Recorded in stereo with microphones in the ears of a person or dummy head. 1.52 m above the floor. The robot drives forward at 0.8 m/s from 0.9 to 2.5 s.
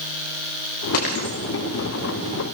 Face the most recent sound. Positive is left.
turn(degrees=45)  # may be behind; listen again after turning